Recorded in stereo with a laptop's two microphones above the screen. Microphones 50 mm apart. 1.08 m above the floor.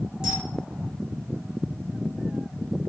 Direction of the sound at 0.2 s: 15° right (ahead or behind).